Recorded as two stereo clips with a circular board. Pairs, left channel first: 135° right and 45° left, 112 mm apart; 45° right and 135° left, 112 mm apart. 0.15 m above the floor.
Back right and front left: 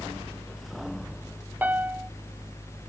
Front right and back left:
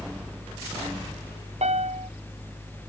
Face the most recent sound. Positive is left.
turn(degrees=120)